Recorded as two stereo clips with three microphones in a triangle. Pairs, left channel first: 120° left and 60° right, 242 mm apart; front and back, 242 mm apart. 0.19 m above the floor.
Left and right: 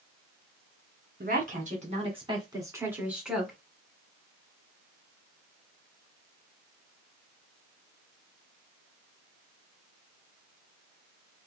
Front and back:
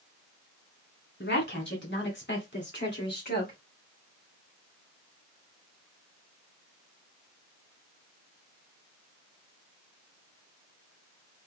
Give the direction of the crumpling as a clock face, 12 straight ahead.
No crumpling in this recording.